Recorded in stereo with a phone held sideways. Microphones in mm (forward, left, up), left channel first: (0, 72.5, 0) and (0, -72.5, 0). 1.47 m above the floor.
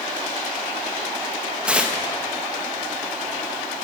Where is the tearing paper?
5° right (ahead or behind), 1.2 m.